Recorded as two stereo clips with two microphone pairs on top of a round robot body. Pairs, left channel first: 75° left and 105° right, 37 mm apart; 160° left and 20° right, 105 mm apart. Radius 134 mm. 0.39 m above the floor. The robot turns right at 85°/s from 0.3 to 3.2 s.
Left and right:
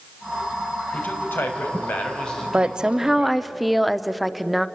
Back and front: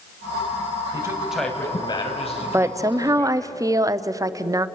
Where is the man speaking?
30° left, 4 m; by 3.5 s 135° right, 4 m.